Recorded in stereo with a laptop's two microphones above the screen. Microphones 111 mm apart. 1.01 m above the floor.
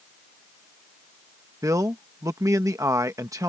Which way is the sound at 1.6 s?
30° right (ahead or behind).